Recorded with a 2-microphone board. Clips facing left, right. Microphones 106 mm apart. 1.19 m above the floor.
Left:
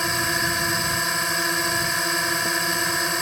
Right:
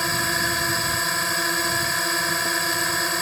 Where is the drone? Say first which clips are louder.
Even; centre (ahead or behind).